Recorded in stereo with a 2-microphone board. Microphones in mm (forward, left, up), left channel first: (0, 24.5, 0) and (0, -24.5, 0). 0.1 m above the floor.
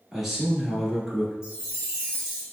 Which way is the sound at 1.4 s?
20° right (ahead or behind).